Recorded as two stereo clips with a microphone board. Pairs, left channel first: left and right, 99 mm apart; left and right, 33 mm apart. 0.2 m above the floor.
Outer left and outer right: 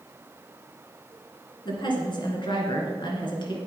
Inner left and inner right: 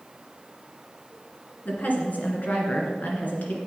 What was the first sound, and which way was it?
A woman speaking, 55° left (ahead or behind).